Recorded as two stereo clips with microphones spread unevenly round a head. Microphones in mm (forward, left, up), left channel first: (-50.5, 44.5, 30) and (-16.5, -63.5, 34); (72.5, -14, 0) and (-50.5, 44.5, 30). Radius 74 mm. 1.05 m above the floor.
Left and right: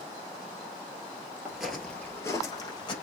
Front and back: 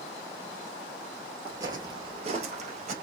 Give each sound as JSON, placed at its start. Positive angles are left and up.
{"t": 1.4, "sound": "footsteps", "azimuth_deg": -150, "distance_m": 1.4}